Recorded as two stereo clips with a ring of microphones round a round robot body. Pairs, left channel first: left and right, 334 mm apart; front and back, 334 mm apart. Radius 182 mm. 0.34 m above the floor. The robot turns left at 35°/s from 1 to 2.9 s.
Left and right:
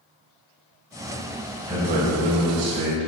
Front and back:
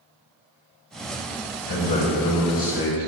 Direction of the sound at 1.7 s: 15° right.